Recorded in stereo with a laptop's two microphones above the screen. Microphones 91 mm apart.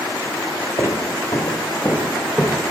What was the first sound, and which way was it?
Footsteps, 45° left (ahead or behind).